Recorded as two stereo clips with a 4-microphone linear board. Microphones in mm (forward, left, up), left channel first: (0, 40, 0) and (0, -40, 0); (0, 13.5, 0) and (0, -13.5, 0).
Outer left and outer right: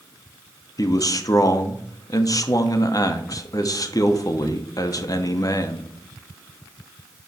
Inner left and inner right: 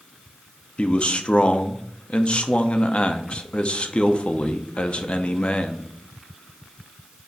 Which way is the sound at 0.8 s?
50° left (ahead or behind).